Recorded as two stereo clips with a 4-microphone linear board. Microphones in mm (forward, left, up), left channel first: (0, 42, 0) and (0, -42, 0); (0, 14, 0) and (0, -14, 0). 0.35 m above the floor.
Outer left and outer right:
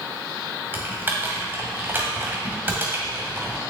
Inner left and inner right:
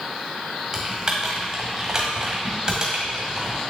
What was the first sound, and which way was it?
Typing on a keyboard, 25° right (ahead or behind).